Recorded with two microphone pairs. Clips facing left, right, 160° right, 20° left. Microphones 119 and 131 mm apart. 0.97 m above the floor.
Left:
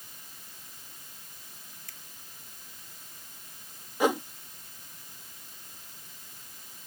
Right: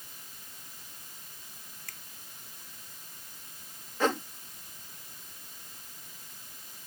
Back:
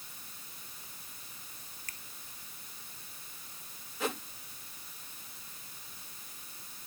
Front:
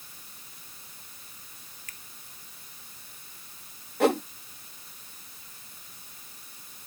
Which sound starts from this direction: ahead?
A whoosh, at 4.0 s.